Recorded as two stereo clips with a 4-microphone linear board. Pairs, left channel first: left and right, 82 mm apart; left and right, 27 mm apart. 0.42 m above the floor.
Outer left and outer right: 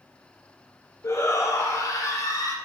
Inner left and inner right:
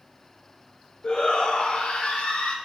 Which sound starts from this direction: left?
A shout, at 1.0 s.